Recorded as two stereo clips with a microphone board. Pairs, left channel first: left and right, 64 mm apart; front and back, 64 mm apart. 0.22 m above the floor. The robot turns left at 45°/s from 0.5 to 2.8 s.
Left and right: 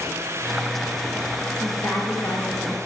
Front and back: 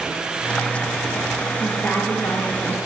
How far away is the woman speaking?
About 3.5 m.